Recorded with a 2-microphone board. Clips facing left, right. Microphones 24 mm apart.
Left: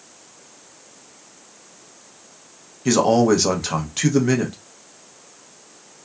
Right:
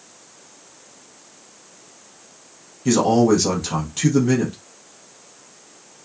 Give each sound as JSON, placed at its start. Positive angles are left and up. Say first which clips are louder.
{"t": 2.9, "sound": "a man speaking", "louder": "even", "side_deg": 20, "distance_m": 0.7}